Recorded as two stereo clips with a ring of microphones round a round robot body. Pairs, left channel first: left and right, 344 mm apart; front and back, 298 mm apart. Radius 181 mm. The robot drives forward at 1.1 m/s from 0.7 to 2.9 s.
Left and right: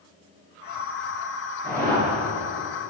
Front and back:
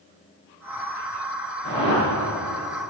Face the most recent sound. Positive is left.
turn(degrees=-160)